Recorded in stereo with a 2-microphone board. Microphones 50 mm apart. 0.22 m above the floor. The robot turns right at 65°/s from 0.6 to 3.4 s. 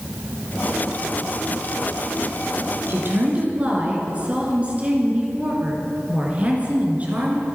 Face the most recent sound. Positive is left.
turn(degrees=-30)